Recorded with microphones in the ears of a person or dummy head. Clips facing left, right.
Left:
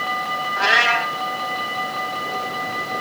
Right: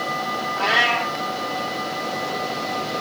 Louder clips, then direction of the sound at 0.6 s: Left 1 dB; 20° left (ahead or behind).